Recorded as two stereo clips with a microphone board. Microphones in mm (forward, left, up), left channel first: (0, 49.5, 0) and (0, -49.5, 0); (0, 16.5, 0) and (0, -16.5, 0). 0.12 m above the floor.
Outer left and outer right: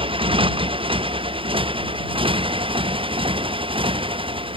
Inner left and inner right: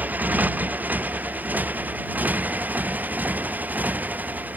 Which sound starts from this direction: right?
A motorcycle, at 0.0 s.